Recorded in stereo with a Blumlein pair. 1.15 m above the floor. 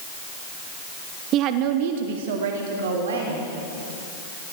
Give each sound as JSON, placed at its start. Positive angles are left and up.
{"t": 1.3, "sound": "a woman speaking", "azimuth_deg": -35, "distance_m": 1.2}